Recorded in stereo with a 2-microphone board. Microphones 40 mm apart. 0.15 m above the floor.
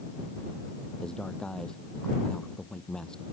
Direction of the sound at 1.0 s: 15° left (ahead or behind).